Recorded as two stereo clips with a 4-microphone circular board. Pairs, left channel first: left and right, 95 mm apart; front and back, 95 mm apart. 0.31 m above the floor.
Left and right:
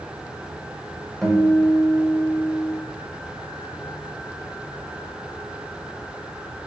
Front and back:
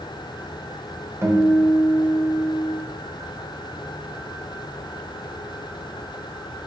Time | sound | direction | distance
1.2 | a guitar | 175° left | 1.7 m